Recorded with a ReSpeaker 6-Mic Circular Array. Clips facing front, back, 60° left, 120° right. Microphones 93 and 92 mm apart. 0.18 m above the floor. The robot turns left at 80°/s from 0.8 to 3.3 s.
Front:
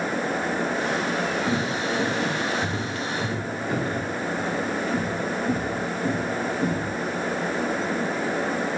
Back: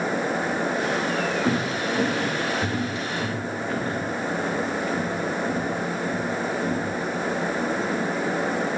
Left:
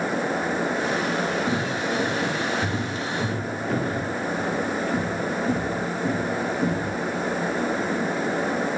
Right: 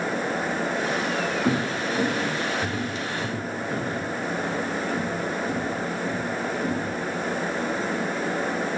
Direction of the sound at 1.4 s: 120° right.